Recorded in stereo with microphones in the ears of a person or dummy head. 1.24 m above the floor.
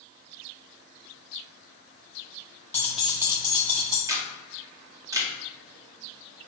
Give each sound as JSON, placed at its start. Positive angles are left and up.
{"t": 2.7, "sound": "keys jangling", "side_deg": 15, "distance_m": 0.7}
{"t": 4.1, "sound": "a camera shutter", "side_deg": -15, "distance_m": 0.8}